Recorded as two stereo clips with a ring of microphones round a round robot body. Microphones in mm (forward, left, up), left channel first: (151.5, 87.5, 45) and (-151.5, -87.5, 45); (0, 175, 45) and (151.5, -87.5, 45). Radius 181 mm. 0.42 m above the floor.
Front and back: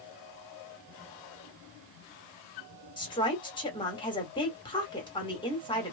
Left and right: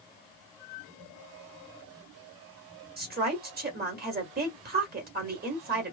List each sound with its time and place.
3.0 s a woman speaking: 35° right, 1.4 m